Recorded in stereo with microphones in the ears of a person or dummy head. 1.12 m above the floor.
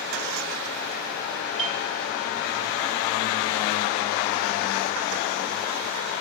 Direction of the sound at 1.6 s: 55° right (ahead or behind).